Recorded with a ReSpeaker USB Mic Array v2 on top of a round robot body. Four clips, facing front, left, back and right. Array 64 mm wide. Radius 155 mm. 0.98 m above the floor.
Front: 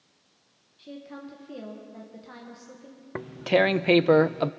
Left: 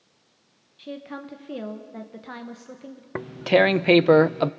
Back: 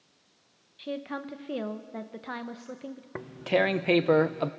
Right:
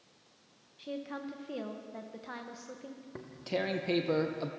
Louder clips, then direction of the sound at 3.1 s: Left 16 dB, front 4 dB; 75° left.